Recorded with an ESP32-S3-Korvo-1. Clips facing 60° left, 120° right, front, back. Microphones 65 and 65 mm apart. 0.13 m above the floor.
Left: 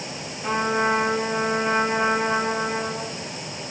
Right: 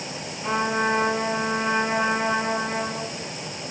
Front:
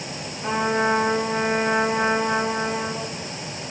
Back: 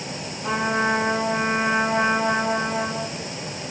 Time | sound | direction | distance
0.4 | a trumpet | 20° right | 1.0 m